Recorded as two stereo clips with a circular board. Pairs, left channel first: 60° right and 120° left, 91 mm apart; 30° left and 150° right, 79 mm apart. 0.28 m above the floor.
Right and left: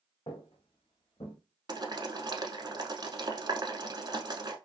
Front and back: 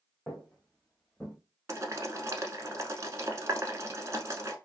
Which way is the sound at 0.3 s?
50° right.